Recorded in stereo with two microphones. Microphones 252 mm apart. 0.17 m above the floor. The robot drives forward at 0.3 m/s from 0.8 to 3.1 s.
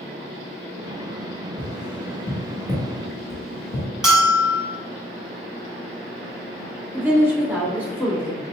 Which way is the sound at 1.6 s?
5° right (ahead or behind).